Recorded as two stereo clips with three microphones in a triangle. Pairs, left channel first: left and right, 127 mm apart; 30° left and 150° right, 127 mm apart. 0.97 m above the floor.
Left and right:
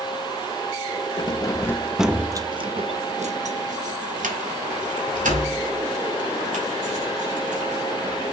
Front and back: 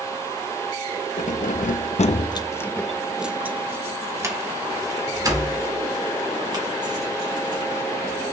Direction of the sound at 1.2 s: 40° left.